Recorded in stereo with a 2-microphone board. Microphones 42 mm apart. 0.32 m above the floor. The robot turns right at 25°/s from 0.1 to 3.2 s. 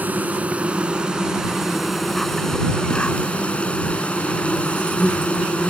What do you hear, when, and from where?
0.0 s an insect: 45° right; by 5.7 s 30° left